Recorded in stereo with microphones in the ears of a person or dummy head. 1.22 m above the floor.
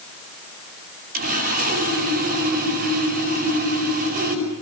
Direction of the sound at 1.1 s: 50° right (ahead or behind).